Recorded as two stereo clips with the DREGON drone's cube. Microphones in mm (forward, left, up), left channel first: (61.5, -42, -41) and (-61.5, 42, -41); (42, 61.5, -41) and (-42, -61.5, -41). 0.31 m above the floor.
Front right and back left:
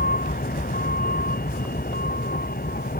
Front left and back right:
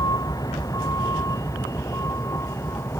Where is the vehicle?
10° right; by 3.0 s 20° right.